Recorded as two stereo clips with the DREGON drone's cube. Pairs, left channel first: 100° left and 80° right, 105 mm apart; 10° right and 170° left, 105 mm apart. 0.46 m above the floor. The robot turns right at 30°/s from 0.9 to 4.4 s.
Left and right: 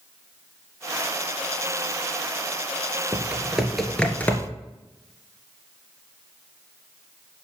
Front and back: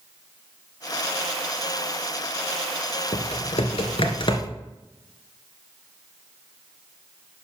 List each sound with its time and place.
3.1 s typing on a keyboard: 10° right, 1.5 m; by 4.5 s 30° left, 1.5 m